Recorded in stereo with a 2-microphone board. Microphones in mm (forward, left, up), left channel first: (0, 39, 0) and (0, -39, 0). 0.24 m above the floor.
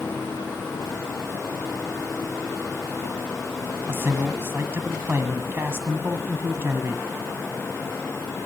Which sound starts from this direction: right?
A man speaking, at 3.9 s.